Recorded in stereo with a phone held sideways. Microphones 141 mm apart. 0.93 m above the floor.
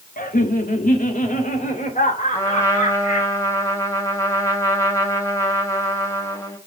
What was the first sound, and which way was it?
Laughter, 75° left (ahead or behind).